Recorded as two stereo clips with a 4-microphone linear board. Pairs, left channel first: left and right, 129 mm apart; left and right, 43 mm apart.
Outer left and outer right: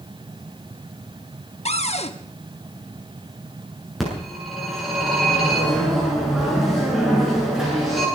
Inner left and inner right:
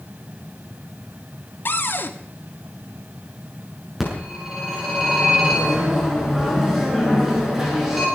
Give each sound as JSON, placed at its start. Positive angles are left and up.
{"t": 1.6, "sound": "a cupboard door", "side_deg": 55, "distance_m": 1.4}
{"t": 4.0, "sound": "a phone ringing", "side_deg": 0, "distance_m": 8.0}